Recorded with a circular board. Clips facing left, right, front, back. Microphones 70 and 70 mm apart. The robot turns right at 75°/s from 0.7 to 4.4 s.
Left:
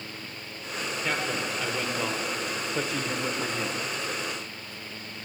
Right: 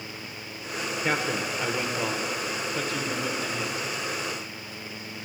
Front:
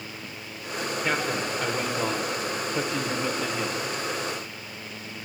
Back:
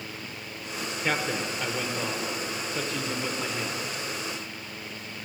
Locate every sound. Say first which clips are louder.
1.0 s a man speaking: right 3 dB, even; 95° right, 0.8 m; by 3.9 s 120° left, 0.8 m